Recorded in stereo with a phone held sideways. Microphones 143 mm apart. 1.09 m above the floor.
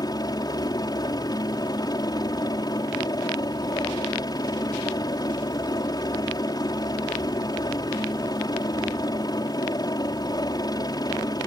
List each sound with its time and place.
0.0 s a helicopter: 30° left (ahead or behind)